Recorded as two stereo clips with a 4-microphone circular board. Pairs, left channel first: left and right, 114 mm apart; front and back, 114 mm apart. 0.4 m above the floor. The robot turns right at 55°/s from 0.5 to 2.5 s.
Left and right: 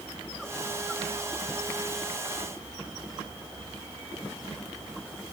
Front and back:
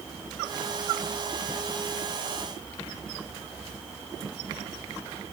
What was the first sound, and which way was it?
Only background noise.